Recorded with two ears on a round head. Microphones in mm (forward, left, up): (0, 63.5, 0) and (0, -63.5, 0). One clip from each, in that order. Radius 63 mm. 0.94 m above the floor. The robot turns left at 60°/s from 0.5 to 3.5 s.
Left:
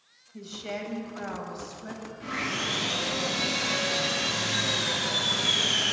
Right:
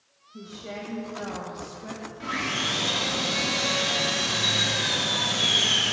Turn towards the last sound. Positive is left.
turn(degrees=-145)